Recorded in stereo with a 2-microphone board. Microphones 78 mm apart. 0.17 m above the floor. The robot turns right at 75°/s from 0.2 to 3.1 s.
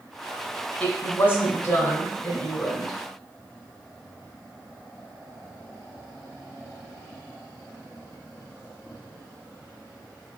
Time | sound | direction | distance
0.8 | a woman speaking | 15° left (ahead or behind) | 1.3 m